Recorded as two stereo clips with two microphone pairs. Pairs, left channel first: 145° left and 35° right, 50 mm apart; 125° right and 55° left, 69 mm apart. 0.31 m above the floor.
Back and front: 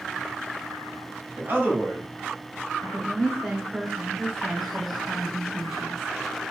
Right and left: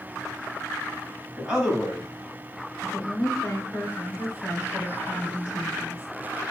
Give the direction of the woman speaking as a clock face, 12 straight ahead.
4 o'clock.